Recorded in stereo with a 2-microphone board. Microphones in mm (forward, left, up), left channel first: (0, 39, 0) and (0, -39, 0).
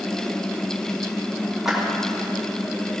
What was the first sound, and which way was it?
A clap, 5° right (ahead or behind).